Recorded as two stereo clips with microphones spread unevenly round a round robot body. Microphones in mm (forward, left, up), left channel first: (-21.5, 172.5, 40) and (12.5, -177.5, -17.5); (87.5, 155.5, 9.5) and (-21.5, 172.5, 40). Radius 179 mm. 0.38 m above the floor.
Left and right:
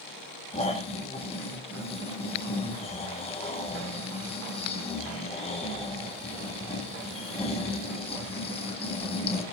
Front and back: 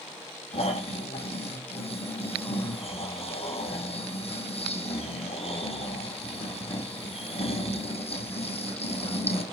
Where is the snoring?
20° left, 4.5 m.